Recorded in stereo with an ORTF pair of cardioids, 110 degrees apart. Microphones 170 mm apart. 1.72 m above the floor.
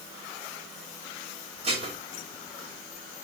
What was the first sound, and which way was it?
Dishes clattering, 40° right.